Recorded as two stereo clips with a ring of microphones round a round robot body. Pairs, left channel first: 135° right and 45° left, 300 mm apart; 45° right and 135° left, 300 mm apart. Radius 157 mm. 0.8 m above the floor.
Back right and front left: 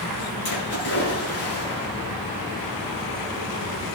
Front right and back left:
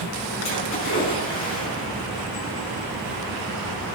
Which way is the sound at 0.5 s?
95° right.